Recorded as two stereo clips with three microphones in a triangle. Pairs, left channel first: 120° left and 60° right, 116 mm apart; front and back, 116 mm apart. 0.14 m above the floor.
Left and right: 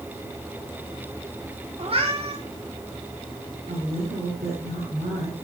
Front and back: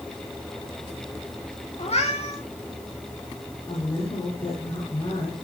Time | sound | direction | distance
1.8 | a cat meowing | 25° right | 3.5 m
3.7 | a woman speaking | 50° right | 8.5 m